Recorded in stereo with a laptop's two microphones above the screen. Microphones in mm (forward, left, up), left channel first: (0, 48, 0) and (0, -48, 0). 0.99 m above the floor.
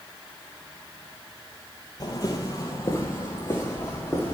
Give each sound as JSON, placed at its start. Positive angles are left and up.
{"t": 2.0, "sound": "footsteps", "side_deg": 45, "distance_m": 1.4}